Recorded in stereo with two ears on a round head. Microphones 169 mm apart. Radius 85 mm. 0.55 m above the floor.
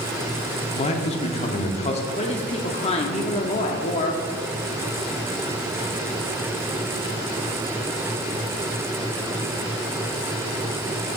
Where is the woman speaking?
30° left (ahead or behind), 0.7 m.